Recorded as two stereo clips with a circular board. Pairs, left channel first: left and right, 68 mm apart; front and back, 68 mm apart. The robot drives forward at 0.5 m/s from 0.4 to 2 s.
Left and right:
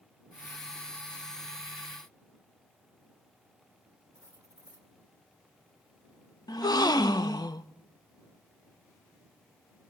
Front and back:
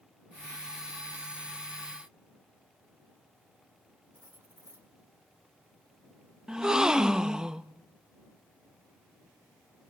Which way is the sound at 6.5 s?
100° left.